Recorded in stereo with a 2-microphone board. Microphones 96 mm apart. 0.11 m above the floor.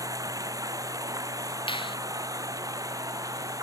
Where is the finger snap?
60° left (ahead or behind).